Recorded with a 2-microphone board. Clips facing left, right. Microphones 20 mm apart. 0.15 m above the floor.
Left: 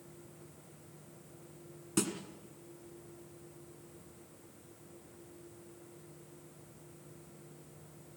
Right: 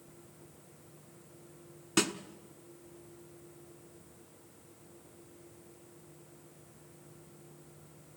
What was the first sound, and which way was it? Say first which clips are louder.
A snare drum: right 4 dB; 35° right (ahead or behind).